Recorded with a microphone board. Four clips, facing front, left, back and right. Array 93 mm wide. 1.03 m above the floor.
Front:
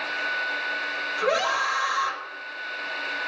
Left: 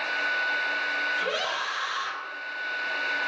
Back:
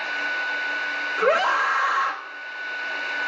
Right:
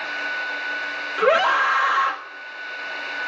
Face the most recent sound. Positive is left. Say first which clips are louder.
# right 11 dB, back 4 dB
turn(degrees=-120)